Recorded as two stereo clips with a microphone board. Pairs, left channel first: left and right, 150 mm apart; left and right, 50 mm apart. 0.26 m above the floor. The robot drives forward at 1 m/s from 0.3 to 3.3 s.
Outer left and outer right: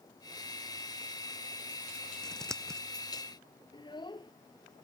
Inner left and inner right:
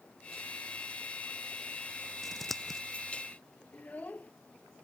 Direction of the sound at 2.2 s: 5° left (ahead or behind).